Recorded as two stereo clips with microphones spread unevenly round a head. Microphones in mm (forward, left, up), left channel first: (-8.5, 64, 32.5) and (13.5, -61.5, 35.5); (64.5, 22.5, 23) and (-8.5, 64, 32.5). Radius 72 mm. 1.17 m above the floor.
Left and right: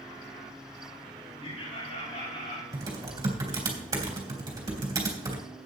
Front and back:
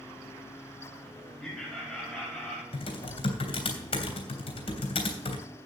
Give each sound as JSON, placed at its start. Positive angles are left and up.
{"t": 1.4, "sound": "laughter", "azimuth_deg": 55, "distance_m": 7.0}
{"t": 2.7, "sound": "typing on a keyboard", "azimuth_deg": -15, "distance_m": 3.0}